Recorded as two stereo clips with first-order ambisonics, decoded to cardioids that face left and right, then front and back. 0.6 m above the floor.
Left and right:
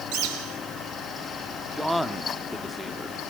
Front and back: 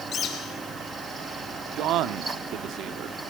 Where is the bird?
65° right, 4 m.